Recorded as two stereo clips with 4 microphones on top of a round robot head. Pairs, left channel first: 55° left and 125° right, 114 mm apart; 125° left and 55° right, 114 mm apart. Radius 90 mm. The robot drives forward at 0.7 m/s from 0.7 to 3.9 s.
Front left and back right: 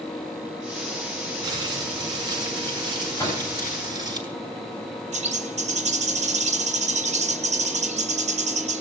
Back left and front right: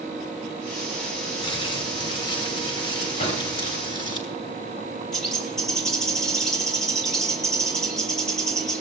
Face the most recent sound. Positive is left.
turn(degrees=-150)